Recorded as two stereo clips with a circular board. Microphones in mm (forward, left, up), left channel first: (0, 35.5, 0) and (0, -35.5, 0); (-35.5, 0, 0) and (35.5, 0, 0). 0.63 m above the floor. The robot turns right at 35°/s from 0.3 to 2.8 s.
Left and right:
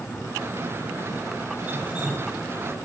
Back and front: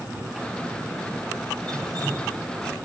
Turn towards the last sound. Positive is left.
turn(degrees=10)